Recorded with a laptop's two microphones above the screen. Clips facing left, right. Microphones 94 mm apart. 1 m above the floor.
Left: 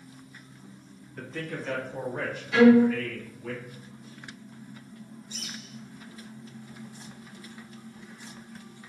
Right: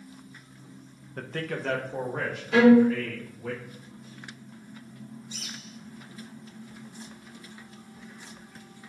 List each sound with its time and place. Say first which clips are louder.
1.2 s a man speaking: right 3 dB; 50° right (ahead or behind), 0.6 m; by 3.5 s 55° right (ahead or behind), 1.7 m
2.5 s a violin: even; 50° right (ahead or behind), 1.2 m
5.3 s a bird: left 1 dB; 65° right (ahead or behind), 1.2 m